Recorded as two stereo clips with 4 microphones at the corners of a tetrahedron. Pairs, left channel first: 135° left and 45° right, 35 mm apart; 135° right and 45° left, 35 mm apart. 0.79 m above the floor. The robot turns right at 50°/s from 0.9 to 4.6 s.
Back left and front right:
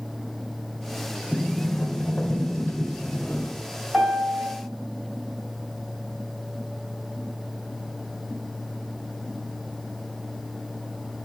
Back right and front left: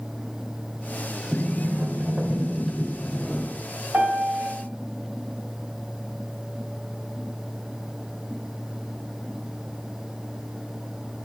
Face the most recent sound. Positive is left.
turn(degrees=45)